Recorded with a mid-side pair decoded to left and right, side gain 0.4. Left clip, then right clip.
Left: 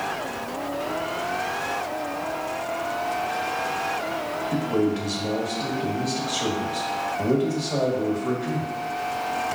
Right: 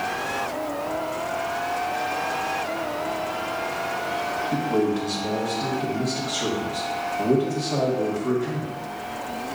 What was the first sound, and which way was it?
A man speaking, 5° left.